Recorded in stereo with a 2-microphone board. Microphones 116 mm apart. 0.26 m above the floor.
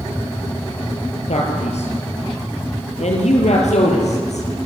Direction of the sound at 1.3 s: 70° left (ahead or behind).